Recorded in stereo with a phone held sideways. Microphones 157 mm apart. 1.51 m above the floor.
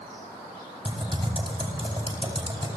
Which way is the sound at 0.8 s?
35° right (ahead or behind).